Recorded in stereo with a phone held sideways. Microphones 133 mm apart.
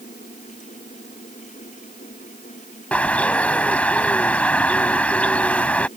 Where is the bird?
10° left (ahead or behind).